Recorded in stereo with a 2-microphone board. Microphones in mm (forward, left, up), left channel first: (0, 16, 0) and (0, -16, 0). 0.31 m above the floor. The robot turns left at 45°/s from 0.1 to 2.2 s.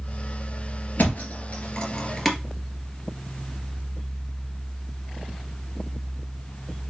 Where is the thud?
60° left (ahead or behind), 1.5 m; by 2.4 s 5° left (ahead or behind), 1.5 m.